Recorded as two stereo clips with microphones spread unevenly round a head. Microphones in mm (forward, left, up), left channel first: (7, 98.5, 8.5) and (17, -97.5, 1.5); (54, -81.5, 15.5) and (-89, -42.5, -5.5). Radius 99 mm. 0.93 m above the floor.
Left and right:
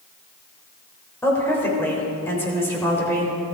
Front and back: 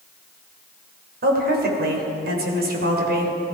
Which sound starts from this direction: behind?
A woman speaking, at 1.2 s.